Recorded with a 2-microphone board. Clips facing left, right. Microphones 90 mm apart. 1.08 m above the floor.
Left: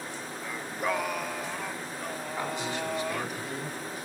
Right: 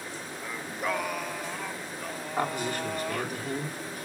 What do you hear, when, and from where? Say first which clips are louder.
0.4 s singing: left 1 dB; centre (ahead or behind), 0.7 m
2.4 s a man speaking: right 4 dB; 55° right (ahead or behind), 2.5 m